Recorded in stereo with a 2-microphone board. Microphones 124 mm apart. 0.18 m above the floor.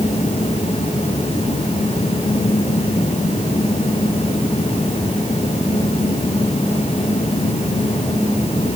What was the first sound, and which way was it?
Only background noise.